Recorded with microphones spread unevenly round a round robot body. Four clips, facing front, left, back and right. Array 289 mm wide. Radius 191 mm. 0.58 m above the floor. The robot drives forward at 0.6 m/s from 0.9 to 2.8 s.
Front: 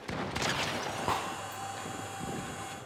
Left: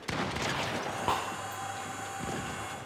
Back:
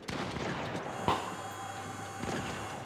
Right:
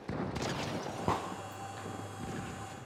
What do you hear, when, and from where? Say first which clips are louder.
1.1 s breaking glass: left 2 dB, back 4 dB; 135° right, 0.7 m; by 1.9 s 160° right, 1.0 m